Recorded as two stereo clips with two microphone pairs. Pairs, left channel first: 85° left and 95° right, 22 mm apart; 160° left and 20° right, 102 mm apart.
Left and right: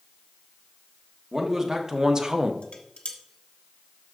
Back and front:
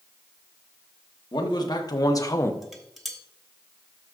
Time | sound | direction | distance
1.3 | a man speaking | 155° right | 1.6 m
2.6 | dishes clattering | 70° left | 1.1 m